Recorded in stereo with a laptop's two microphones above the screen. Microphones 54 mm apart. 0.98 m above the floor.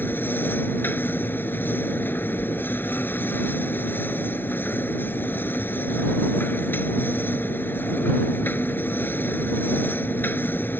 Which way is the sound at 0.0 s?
40° left (ahead or behind).